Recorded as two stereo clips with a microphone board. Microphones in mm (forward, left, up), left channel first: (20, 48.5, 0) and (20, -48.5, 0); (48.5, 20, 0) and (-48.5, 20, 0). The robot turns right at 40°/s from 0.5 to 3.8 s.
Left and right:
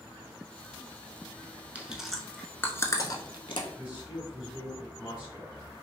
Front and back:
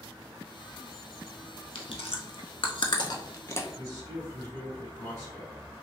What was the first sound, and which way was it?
Chewing, 15° right.